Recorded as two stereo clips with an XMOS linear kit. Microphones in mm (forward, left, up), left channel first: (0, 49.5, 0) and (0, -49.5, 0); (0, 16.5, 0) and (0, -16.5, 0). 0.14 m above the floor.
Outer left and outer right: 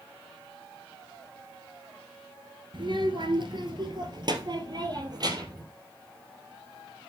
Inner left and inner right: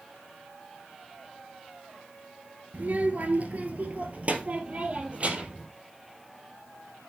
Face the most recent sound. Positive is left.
turn(degrees=-40)  # may be behind; listen again after turning